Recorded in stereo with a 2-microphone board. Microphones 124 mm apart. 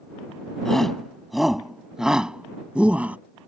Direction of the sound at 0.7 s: Centre (ahead or behind).